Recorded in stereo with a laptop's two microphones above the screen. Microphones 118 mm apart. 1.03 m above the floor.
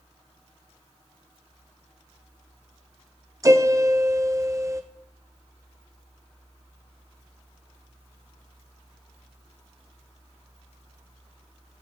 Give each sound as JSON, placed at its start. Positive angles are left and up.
{"t": 3.4, "sound": "a piano", "side_deg": -25, "distance_m": 0.7}